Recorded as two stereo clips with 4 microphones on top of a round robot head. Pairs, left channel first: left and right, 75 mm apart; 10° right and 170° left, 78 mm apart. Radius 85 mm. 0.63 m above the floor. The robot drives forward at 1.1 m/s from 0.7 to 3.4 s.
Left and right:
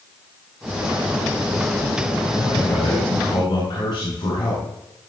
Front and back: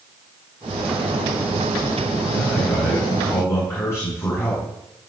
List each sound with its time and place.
2.3 s a man speaking: 45° left, 7.5 m; by 4.7 s 50° left, 6.5 m